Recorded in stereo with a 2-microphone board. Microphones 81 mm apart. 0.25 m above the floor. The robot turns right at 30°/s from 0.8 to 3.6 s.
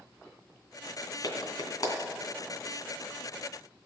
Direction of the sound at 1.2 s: 55° left (ahead or behind).